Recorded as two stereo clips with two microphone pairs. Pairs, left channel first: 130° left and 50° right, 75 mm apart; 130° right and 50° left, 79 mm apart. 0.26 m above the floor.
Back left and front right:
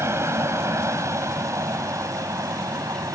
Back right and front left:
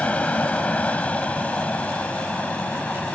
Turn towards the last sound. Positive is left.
turn(degrees=-60)